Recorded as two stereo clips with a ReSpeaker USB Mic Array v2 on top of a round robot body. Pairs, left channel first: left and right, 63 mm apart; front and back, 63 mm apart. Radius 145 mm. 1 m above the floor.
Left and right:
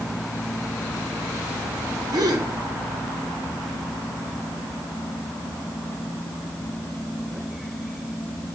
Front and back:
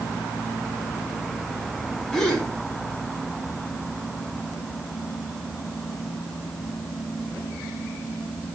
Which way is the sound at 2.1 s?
80° right.